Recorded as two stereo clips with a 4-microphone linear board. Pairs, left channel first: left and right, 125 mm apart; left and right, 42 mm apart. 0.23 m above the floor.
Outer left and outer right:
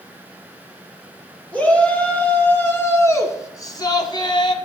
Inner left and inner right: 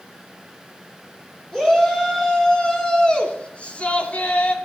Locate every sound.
1.5 s a shout: 10° left (ahead or behind), 3.5 m; by 4.5 s 40° left (ahead or behind), 1.3 m